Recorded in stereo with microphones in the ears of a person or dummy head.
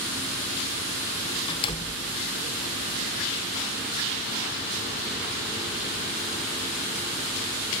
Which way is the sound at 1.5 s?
25° left (ahead or behind).